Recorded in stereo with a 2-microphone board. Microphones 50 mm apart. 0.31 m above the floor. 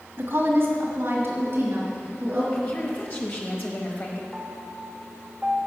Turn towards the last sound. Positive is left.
turn(degrees=-20)  # may be behind; listen again after turning